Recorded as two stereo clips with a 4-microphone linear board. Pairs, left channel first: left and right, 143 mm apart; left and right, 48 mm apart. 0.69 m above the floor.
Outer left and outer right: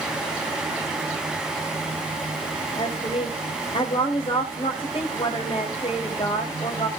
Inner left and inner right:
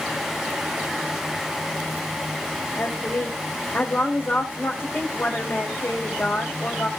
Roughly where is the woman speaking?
Left.